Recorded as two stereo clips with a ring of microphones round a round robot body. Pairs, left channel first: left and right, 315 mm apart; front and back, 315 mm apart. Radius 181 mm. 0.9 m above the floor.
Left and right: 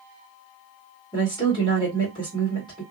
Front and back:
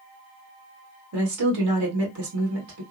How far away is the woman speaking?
About 1.4 m.